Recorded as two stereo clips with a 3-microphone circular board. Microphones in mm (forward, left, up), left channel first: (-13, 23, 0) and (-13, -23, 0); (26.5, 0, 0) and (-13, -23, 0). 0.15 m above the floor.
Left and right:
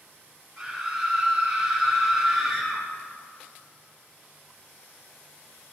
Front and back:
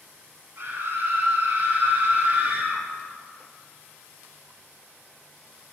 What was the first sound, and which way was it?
A scream, 175° right.